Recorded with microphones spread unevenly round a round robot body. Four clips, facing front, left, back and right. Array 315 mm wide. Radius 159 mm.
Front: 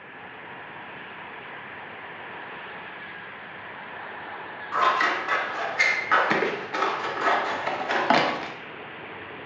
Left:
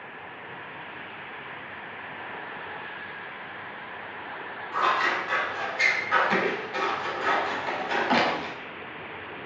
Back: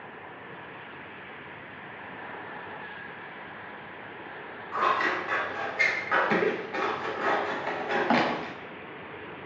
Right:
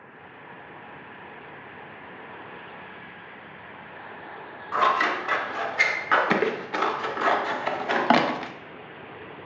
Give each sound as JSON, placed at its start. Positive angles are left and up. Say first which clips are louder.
{"t": 4.7, "sound": "scissors", "louder": "right 3 dB, front 3 dB", "azimuth_deg": -60, "distance_m": 0.5}